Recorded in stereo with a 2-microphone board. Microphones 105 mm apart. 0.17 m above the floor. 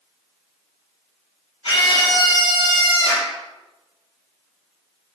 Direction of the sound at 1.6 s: 60° left (ahead or behind).